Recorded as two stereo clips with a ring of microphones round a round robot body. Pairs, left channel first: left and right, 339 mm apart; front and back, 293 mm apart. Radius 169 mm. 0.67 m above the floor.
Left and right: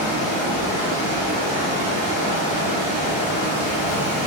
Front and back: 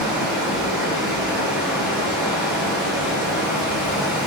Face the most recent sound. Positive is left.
turn(degrees=-90)